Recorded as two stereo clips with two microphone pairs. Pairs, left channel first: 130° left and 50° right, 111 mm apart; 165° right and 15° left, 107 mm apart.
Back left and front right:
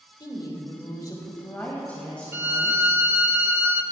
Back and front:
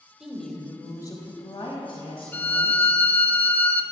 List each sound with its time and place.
0.2 s a woman speaking: 100° left, 1.3 m; by 3.0 s 140° right, 2.5 m
2.3 s a violin: 105° right, 0.6 m